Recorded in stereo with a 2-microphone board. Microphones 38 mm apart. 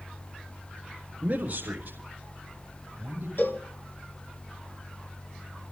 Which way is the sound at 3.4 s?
65° left (ahead or behind).